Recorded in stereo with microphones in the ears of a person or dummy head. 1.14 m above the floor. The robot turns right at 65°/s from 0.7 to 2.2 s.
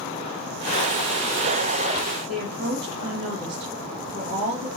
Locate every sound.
2.3 s a woman speaking: 60° right (ahead or behind), 1.3 m